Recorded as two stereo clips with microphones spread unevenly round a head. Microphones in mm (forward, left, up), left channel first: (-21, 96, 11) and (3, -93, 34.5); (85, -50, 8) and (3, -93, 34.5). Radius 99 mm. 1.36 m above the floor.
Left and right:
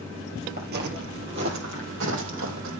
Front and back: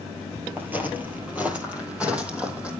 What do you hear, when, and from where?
0.6 s footsteps: 100° right, 2 m; by 2.7 s 80° right, 4 m